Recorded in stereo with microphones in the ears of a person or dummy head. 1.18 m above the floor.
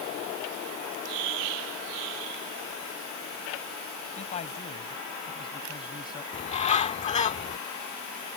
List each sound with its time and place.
4.2 s a man speaking: 35° left (ahead or behind); by 6.2 s 20° left (ahead or behind)
6.3 s a bird: 35° left (ahead or behind)